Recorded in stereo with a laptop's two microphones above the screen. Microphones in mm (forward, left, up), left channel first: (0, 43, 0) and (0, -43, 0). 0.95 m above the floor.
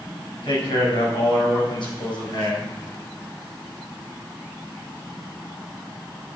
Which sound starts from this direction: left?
A man speaking, at 0.4 s.